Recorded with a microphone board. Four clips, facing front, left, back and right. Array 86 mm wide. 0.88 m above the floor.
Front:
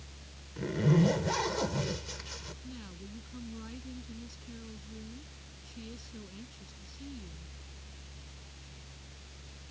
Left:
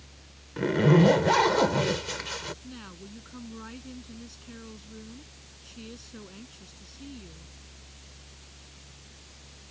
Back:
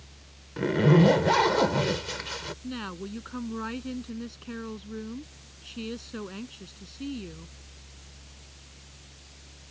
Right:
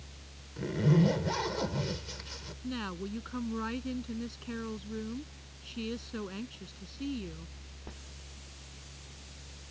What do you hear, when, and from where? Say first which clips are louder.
0.6 s a zipper: left 7 dB, back 7 dB; 135° left
2.6 s a woman speaking: right 7 dB, back 13 dB; 155° right